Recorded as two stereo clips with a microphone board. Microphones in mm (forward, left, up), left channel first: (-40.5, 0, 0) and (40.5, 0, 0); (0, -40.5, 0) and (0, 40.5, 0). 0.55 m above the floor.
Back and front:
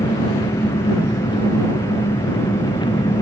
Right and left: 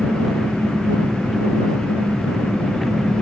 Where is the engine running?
Straight behind.